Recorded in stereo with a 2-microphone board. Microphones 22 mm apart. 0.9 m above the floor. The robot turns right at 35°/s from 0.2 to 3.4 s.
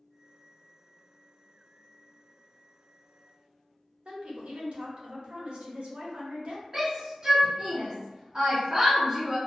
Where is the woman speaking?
55° right (ahead or behind), 1.0 m.